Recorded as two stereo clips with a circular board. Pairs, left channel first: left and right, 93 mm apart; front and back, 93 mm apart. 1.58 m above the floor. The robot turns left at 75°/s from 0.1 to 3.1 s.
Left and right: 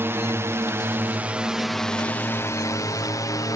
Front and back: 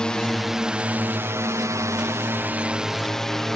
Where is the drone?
70° right; by 3.6 s 85° left.